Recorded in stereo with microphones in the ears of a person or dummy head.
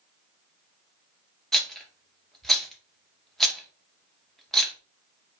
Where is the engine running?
I don't hear an engine running.